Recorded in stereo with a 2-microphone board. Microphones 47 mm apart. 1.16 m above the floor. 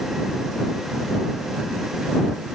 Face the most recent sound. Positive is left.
No sound to turn to.